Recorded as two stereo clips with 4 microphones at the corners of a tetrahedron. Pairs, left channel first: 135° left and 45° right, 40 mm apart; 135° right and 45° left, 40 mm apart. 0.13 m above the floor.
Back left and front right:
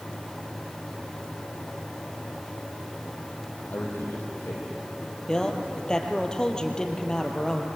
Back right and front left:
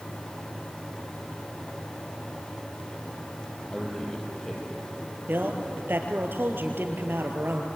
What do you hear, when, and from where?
3.7 s a man speaking: 145° left, 5 m; by 5.9 s 150° left, 7 m
5.3 s a man speaking: 65° left, 3 m